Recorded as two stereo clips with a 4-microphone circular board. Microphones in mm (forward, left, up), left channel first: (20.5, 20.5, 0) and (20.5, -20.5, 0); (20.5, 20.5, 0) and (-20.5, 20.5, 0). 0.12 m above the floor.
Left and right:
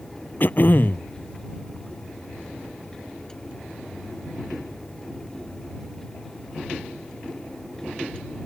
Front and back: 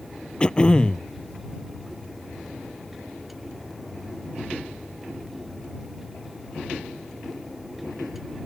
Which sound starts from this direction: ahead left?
Throat clearing, at 0.4 s.